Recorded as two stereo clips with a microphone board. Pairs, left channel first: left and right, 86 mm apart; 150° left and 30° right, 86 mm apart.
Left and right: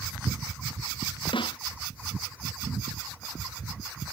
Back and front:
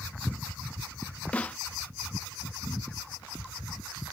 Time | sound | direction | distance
1.3 | a snare drum | 75° left | ?